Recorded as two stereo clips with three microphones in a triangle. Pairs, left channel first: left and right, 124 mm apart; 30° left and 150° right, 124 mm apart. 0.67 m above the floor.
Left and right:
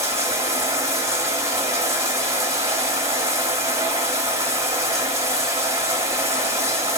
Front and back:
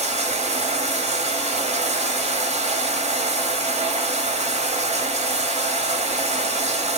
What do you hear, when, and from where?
0.0 s running water: 155° right, 1.2 m